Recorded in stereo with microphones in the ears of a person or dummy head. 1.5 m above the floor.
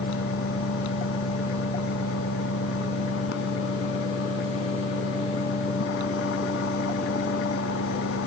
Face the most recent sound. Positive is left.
turn(degrees=75)  # may be behind; listen again after turning